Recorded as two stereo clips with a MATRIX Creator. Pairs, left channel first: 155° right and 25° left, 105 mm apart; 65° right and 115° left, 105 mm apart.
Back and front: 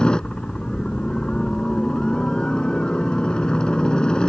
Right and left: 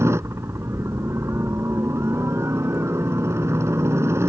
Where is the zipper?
I don't hear a zipper.